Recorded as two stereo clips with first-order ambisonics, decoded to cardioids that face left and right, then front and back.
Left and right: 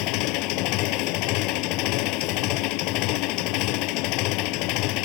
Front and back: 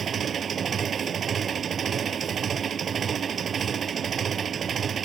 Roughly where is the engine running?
Behind left.